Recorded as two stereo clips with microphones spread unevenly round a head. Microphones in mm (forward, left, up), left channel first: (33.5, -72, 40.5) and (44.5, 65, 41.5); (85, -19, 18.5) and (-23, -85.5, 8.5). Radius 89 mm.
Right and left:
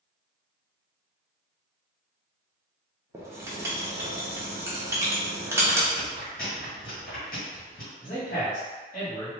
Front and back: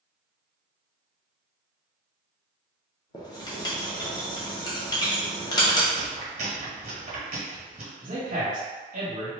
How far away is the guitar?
No guitar in this recording.